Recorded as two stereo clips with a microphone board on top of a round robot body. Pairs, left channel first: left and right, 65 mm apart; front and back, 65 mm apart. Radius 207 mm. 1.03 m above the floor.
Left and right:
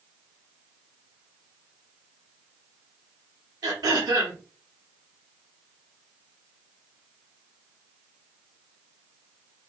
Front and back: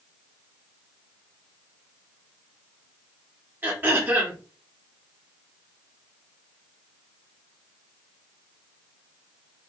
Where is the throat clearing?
120° right, 0.7 m.